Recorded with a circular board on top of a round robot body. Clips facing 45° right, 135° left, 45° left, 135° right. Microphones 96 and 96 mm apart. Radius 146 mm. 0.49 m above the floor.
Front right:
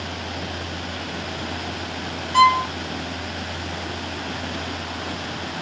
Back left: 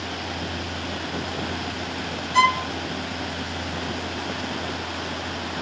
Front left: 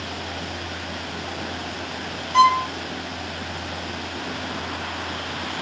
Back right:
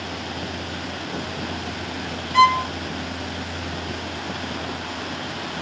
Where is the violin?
15° right, 0.9 m.